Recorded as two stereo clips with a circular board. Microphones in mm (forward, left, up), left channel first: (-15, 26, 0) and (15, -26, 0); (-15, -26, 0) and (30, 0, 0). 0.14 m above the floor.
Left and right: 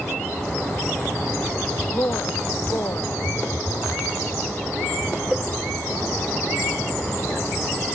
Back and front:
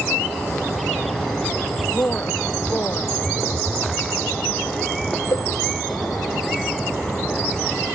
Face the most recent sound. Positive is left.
turn(degrees=-150)